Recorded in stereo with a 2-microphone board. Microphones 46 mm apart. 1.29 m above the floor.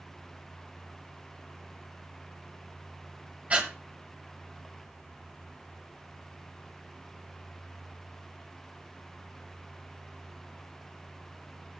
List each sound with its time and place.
3.5 s breathing: 30° right (ahead or behind), 1.7 m